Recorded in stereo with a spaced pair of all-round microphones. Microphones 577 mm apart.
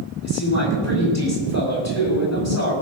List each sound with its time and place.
0.2 s a man speaking: 25° left (ahead or behind), 5.5 m